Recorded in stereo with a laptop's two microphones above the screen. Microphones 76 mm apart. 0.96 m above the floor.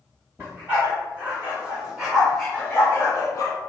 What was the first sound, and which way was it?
A dog barking, 35° right (ahead or behind).